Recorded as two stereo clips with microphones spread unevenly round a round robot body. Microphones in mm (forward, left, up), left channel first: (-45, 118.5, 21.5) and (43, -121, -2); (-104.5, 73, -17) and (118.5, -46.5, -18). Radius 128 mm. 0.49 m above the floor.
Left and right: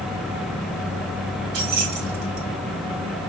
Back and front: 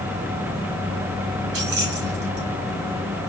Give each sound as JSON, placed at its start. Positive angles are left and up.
{"t": 1.5, "sound": "keys jangling", "azimuth_deg": -45, "distance_m": 2.0}